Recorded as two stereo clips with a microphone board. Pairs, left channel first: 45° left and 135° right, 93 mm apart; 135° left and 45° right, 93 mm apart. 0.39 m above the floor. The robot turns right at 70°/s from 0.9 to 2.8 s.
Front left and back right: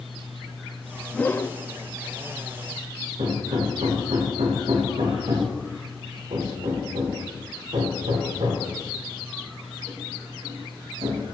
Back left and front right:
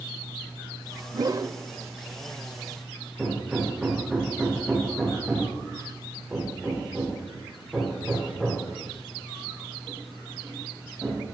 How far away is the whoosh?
About 0.7 m.